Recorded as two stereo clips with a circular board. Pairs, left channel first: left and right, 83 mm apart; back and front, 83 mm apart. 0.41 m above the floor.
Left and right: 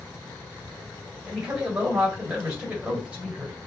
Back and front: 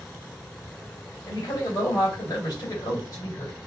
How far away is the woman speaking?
About 1.3 m.